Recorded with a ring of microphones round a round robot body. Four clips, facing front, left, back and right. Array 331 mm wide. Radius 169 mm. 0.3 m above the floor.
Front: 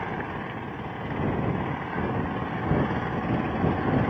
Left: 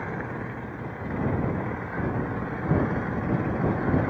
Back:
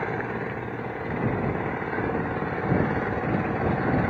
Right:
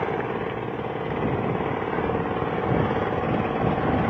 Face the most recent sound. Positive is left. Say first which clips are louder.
# right 7 dB, back 3 dB
turn(degrees=-110)